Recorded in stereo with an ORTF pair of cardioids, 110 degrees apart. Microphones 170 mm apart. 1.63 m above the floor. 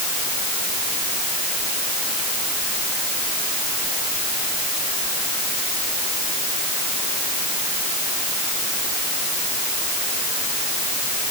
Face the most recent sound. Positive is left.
No sound to turn to.